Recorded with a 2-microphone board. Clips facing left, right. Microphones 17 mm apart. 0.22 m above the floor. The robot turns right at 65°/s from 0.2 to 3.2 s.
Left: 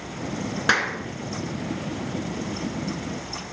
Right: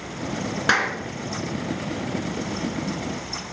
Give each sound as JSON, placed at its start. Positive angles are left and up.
{"t": 0.7, "sound": "a clap", "side_deg": -5, "distance_m": 1.9}